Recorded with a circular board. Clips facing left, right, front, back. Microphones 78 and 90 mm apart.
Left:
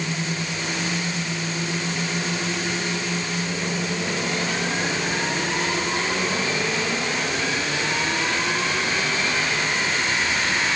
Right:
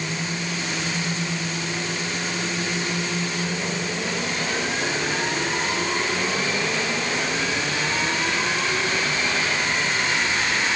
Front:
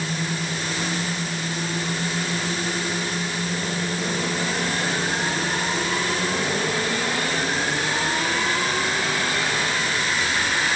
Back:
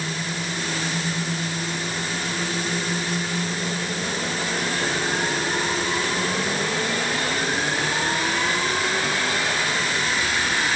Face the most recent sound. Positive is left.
No sound to turn to.